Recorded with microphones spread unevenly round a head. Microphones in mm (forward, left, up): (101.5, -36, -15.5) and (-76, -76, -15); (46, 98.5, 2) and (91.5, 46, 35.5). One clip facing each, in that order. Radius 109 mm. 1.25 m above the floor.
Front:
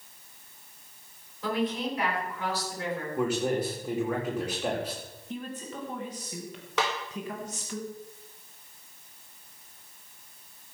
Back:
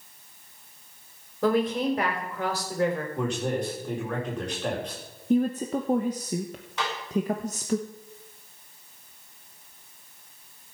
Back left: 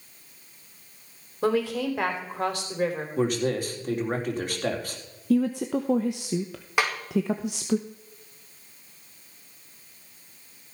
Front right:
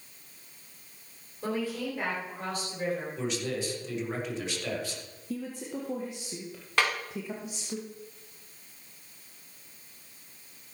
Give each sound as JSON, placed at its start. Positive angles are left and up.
{"t": 1.4, "sound": "a woman speaking", "azimuth_deg": 135, "distance_m": 3.5}
{"t": 3.2, "sound": "a man speaking", "azimuth_deg": 95, "distance_m": 3.5}
{"t": 5.3, "sound": "a woman speaking", "azimuth_deg": 130, "distance_m": 0.8}
{"t": 6.8, "sound": "a snare drum", "azimuth_deg": 60, "distance_m": 4.5}